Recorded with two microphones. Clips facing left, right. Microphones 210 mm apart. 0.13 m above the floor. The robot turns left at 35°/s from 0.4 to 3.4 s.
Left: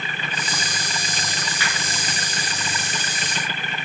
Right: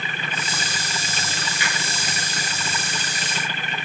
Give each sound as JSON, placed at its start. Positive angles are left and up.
{"t": 1.6, "sound": "a finger snap", "side_deg": -20, "distance_m": 1.4}